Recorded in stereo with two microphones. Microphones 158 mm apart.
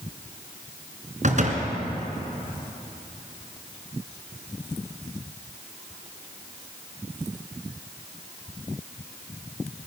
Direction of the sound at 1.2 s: 50° right (ahead or behind).